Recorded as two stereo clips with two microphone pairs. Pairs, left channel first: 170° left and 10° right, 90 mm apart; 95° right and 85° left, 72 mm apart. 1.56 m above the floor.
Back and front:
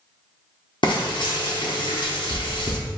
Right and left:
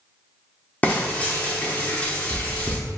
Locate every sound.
0.8 s frying: 160° right, 0.8 m